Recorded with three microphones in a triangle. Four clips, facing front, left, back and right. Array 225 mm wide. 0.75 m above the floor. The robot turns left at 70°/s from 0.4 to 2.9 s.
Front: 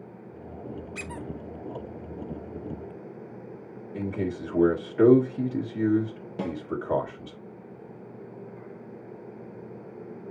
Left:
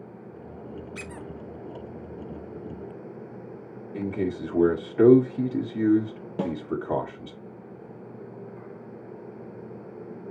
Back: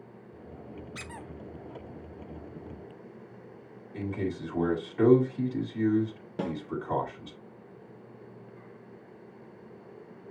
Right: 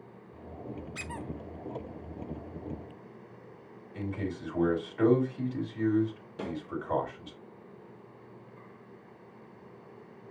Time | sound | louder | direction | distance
0.9 | a squeak | left 2 dB, front 5 dB | 150° right | 1.0 m
3.9 | a man speaking | left 7 dB, front 2 dB | 65° left | 1.6 m
6.4 | a snare drum | left 8 dB, front 1 dB | 95° left | 1.2 m